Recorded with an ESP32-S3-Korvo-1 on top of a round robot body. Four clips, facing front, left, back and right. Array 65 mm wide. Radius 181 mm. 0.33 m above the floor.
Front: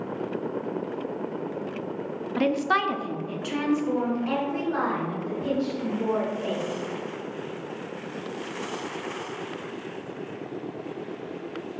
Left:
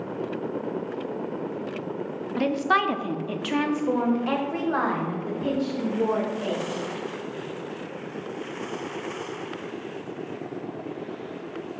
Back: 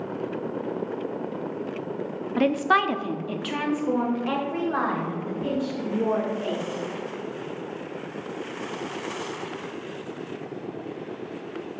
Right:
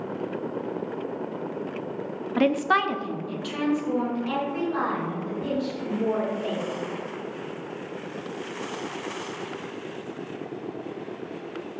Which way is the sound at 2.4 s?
95° right.